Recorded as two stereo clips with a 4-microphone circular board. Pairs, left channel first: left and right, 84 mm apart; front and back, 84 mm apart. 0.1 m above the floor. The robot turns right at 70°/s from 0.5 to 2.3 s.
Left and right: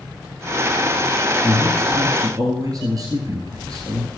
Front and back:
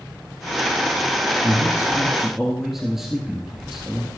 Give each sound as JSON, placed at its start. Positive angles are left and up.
{"t": 1.4, "sound": "a man speaking", "azimuth_deg": -155, "distance_m": 1.6}